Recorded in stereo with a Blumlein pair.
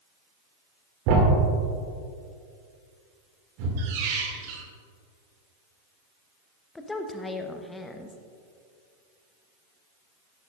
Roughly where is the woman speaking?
Ahead.